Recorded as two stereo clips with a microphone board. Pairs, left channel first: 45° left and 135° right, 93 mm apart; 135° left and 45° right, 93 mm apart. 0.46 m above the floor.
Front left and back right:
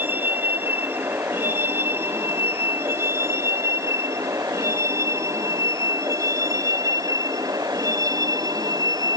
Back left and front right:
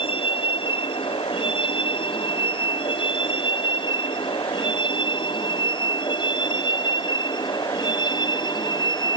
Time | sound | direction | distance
0.0 | a vehicle | 155° left | ?